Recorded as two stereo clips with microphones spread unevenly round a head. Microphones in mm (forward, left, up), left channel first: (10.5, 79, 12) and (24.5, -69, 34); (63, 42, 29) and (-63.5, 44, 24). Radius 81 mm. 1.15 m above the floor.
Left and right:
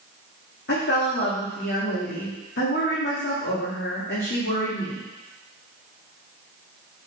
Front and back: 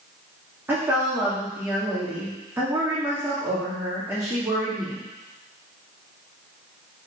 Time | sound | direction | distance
0.7 | a woman speaking | 110° left | 2.5 m